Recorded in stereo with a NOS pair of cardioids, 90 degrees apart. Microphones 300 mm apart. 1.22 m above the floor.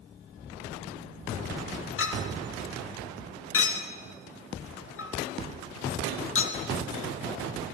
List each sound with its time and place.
2.0 s a clink: 45° left, 1.4 m